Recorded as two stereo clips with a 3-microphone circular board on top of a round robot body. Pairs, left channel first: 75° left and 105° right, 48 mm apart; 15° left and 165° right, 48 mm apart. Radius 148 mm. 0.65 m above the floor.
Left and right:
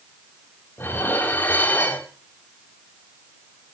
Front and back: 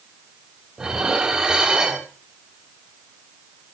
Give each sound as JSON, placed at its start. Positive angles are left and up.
{"t": 0.8, "sound": "dishes clattering", "azimuth_deg": 120, "distance_m": 3.5}